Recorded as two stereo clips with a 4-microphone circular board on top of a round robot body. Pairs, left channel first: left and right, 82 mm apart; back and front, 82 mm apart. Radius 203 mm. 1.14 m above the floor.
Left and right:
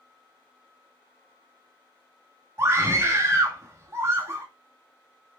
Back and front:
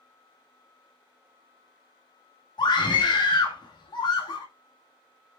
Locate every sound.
2.6 s a scream: 150° right, 2 m